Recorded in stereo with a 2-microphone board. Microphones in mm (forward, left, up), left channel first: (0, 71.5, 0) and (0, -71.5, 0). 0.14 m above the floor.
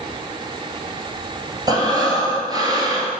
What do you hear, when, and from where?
1.7 s breathing: 30° right (ahead or behind), 1.9 m